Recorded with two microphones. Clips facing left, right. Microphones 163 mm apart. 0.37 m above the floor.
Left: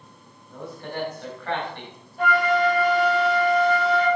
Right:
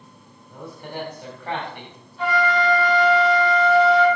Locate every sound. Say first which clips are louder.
0.5 s a man speaking: left 1 dB; 15° right (ahead or behind), 2.5 m
2.2 s a flute: even; 45° left (ahead or behind), 3.5 m